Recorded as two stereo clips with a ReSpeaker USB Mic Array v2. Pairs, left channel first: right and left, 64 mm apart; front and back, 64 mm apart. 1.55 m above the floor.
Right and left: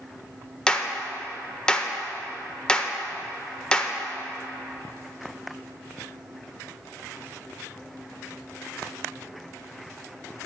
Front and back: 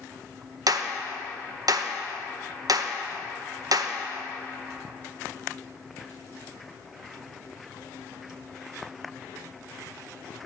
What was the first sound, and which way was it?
A clap, 165° right.